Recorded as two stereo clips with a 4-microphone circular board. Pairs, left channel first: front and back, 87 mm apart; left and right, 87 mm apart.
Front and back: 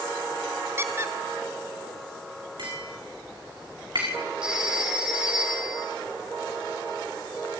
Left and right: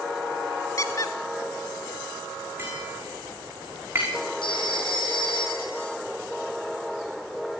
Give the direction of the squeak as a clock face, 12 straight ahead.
8 o'clock.